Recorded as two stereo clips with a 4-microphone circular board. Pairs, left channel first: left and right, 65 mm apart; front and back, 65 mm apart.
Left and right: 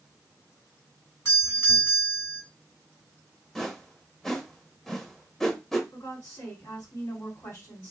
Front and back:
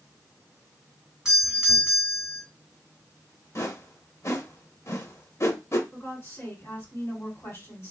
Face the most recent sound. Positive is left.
turn(degrees=40)